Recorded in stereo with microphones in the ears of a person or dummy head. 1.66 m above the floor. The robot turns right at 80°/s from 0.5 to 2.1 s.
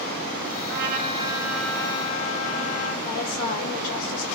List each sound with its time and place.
0.7 s a trumpet: 70° right, 8.5 m; by 2.9 s 45° left, 8.5 m
3.0 s a woman speaking: 55° left (ahead or behind), 6 m